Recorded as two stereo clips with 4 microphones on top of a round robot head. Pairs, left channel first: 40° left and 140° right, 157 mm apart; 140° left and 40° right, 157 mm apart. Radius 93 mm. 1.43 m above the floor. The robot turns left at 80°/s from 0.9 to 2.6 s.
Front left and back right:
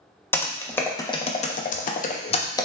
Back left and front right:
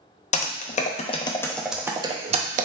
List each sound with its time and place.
0.3 s typing on a keyboard: 110° left, 0.5 m; by 2.7 s 25° right, 0.5 m